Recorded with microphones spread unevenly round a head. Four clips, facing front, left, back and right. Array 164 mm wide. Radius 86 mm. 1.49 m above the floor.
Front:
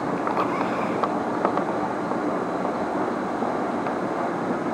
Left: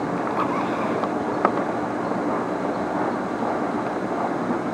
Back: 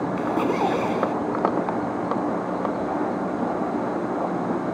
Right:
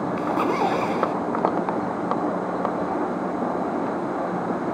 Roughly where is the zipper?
Behind right.